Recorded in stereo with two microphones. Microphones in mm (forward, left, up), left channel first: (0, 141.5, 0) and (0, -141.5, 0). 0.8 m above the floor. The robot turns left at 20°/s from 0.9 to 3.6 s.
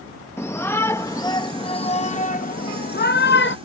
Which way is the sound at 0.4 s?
165° left.